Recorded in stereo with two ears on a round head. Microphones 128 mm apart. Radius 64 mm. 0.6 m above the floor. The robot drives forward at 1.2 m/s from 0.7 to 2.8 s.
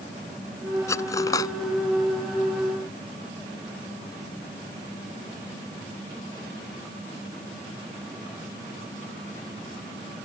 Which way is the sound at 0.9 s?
20° left (ahead or behind).